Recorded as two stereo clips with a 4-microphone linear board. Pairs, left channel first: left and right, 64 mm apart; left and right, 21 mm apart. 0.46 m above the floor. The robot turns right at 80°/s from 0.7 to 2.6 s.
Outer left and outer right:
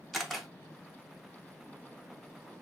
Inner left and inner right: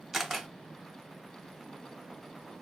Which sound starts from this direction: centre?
A camera shutter, at 0.1 s.